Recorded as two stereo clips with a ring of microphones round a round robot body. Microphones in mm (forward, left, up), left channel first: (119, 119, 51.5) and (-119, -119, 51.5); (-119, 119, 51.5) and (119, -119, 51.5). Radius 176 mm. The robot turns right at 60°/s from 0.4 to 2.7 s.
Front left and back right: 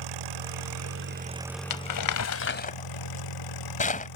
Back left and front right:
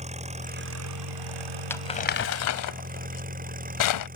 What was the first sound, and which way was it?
An engine running, 115° right.